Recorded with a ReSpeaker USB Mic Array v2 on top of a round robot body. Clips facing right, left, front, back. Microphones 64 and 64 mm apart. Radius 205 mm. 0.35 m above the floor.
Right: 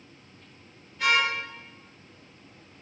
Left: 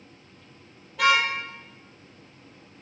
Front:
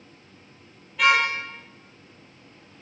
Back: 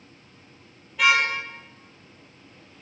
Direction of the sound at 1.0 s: 95° left.